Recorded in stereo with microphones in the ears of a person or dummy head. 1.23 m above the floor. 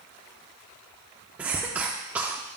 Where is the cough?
10° right (ahead or behind), 0.6 m.